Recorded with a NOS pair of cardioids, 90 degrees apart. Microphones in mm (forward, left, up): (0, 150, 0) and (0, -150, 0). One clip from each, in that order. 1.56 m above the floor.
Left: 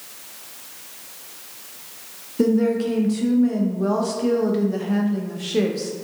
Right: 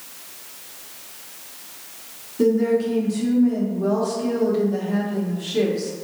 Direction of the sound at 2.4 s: 30° left.